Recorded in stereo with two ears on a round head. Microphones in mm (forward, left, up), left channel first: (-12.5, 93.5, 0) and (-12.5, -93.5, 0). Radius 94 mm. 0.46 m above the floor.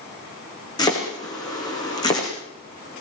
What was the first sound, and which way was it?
Chopping, 20° left (ahead or behind).